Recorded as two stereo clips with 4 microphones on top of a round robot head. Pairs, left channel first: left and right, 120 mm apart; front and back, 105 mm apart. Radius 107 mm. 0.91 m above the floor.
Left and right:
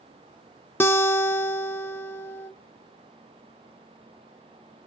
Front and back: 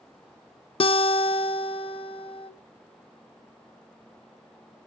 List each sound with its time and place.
0.8 s a guitar: 20° left, 0.8 m